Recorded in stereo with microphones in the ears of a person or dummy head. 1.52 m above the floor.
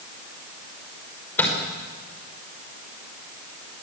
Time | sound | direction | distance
1.4 | a microwave | 10° left (ahead or behind) | 5 m